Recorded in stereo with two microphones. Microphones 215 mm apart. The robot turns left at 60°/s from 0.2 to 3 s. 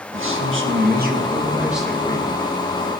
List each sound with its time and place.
0.1 s a man speaking: 85° right, 1.5 m; by 2.3 s 150° left, 1.5 m